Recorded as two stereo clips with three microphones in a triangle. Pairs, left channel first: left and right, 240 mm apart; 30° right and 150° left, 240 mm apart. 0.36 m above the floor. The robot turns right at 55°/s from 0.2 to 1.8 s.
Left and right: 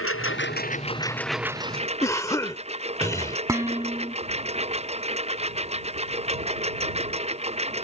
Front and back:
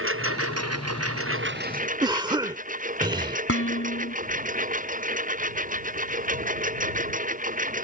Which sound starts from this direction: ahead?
Dishes clattering, at 3.5 s.